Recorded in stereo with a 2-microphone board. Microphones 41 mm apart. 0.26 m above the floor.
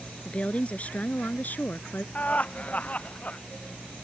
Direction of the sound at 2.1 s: 35° left (ahead or behind).